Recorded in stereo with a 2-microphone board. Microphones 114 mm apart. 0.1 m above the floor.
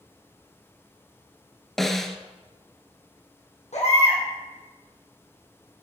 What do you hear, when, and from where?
1.8 s a snare drum: 5° left (ahead or behind), 0.8 m
3.7 s a baby crying: 70° left (ahead or behind), 3.5 m